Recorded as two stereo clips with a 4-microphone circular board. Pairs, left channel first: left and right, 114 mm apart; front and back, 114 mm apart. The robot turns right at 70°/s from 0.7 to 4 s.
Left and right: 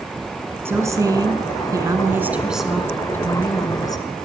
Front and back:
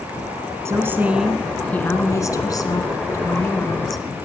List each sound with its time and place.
0.7 s a woman speaking: 140° right, 1.6 m; by 4.0 s 90° left, 1.6 m